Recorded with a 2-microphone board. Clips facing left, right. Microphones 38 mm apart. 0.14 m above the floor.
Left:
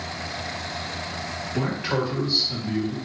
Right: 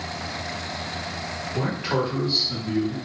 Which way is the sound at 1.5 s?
5° right (ahead or behind).